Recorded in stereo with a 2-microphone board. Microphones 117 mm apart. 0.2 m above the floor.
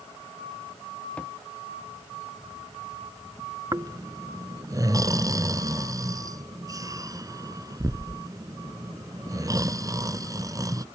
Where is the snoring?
30° right (ahead or behind).